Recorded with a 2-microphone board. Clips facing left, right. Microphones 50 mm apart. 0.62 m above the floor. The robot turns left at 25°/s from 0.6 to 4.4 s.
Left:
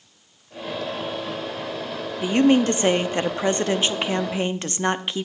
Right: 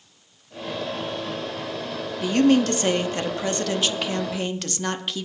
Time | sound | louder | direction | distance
2.2 | a woman speaking | left 1 dB | 20° left (ahead or behind) | 0.7 m